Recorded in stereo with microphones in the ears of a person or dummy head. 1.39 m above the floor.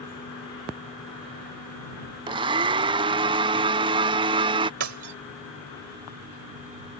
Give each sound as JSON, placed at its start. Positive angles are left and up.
{"t": 2.3, "sound": "a blender", "side_deg": -20}
{"t": 4.8, "sound": "breaking glass", "side_deg": -65}